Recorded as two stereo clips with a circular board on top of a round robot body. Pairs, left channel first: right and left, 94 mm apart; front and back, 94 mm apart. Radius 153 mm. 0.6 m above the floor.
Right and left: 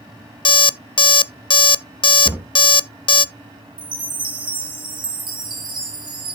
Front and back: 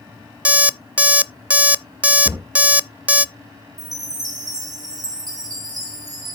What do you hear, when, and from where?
0.5 s an alarm clock: 105° right, 0.6 m
2.2 s a cupboard door: 150° left, 1.6 m
3.8 s a chime: 130° left, 3 m